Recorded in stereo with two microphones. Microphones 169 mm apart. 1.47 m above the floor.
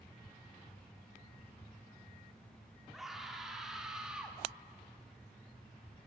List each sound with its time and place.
2.9 s a scream: centre (ahead or behind), 5 m; by 4.4 s 5° right (ahead or behind), 3.5 m